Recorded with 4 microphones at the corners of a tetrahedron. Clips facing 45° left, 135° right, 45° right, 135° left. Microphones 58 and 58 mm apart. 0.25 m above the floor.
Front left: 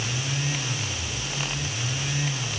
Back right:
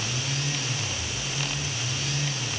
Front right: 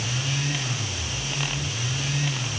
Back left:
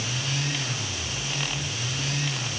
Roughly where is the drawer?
No drawer in this recording.